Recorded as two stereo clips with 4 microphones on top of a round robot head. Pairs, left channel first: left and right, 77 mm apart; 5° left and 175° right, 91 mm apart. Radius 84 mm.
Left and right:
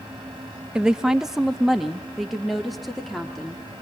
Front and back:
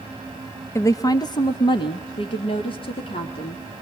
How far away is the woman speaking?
About 0.7 m.